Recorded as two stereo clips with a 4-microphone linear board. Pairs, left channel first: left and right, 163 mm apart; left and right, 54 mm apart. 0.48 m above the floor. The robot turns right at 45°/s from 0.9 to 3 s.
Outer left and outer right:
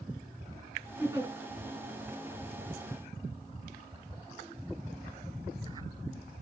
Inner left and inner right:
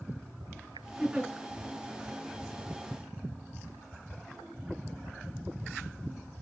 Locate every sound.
1.0 s a giggle: 15° right (ahead or behind), 5 m; by 1.3 s 25° right (ahead or behind), 5 m